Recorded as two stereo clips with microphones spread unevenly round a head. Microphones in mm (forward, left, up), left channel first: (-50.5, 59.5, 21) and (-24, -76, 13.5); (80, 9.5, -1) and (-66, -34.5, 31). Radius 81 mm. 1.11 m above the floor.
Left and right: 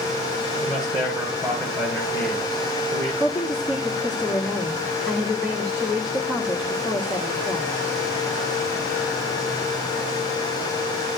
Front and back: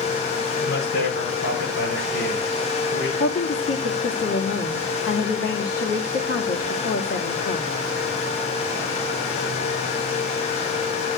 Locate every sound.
0.6 s a man speaking: 10° left, 8 m
3.2 s a woman speaking: 10° left, 2.0 m